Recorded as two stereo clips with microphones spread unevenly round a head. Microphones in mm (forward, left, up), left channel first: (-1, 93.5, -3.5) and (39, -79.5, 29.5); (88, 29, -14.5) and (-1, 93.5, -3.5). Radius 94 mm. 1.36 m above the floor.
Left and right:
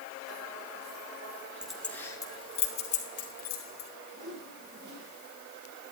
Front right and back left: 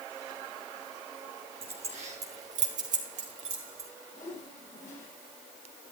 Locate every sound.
1.6 s keys jangling: 160° right, 2 m; by 3.9 s 145° left, 4 m
4.1 s a whoosh: 60° right, 6.5 m